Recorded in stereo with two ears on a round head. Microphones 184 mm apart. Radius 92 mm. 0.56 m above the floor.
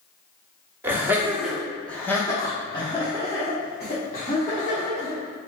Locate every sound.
0.8 s laughter: 10° right (ahead or behind), 1.0 m; by 5.2 s 30° left (ahead or behind), 1.9 m